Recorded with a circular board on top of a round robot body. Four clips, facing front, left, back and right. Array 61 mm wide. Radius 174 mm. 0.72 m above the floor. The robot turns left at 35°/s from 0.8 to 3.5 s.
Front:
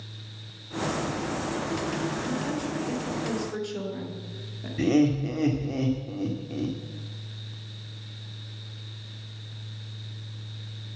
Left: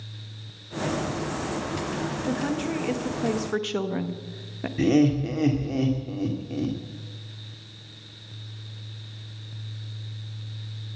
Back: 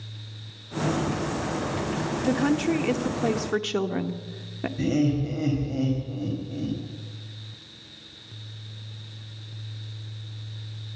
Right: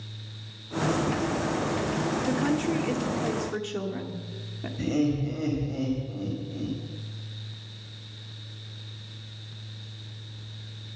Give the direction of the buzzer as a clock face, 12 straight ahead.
No buzzer in this recording.